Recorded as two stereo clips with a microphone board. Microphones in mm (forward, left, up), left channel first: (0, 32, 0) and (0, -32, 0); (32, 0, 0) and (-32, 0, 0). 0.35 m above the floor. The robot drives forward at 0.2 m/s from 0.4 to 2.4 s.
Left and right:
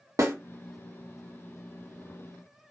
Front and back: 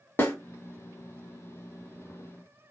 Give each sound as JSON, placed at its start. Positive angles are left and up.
{"t": 0.2, "sound": "a snare drum", "azimuth_deg": -55, "distance_m": 0.7}